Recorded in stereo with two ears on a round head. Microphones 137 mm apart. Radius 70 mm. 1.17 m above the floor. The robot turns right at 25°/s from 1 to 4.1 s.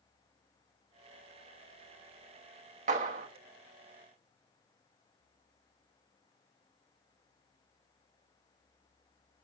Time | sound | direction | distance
2.9 | a clap | 55° right (ahead or behind) | 1.2 m